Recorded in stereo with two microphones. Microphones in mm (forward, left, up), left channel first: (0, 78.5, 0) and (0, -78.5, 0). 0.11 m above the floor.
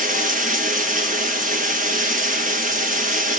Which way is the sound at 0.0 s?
60° right (ahead or behind).